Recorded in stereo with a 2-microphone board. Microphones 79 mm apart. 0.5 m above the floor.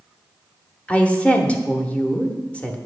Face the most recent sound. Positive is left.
turn(degrees=15)  # may be behind; listen again after turning